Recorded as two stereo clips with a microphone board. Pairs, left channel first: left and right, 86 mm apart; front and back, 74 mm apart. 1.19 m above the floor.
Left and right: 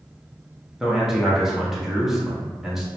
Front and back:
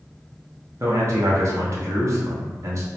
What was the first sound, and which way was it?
A man speaking, 175° right.